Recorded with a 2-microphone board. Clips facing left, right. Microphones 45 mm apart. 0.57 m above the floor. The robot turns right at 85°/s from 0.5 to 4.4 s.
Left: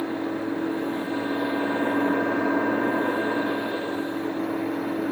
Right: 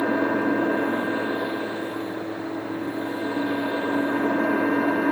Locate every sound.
0.0 s an engine running: 80° right, 0.8 m; by 5.1 s 110° right, 0.8 m